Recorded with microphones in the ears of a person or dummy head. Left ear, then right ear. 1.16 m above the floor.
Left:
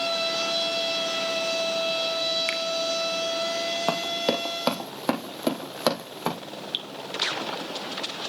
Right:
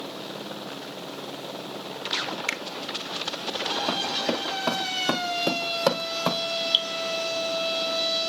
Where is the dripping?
25° right (ahead or behind), 1.9 m.